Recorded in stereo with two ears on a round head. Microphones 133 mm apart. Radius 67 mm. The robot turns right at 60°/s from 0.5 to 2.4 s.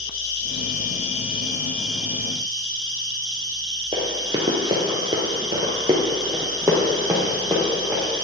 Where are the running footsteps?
25° right (ahead or behind), 1.6 m; by 8.0 s 10° right (ahead or behind), 3 m.